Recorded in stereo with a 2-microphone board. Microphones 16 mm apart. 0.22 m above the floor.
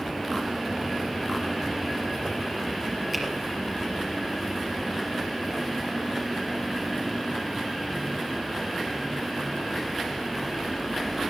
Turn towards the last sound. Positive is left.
turn(degrees=5)  # may be behind; listen again after turning